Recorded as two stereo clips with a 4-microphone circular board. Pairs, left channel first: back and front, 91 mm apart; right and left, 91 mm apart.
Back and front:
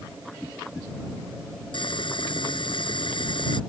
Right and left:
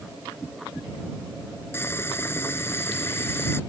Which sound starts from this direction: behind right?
Boiling, at 1.7 s.